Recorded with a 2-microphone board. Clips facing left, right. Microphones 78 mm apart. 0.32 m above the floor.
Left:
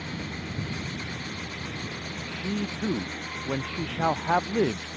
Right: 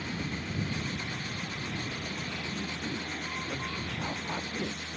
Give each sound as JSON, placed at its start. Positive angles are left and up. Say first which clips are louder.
{"t": 2.3, "sound": "a man speaking", "louder": "left 5 dB", "side_deg": 75}